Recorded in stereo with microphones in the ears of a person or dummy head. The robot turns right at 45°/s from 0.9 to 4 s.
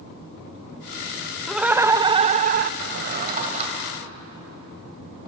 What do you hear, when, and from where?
1.5 s laughter: 175° right, 0.7 m; by 2.7 s 120° right, 0.7 m
2.8 s a drawer: 60° right (ahead or behind), 2.5 m; by 5.3 s 20° right (ahead or behind), 2.5 m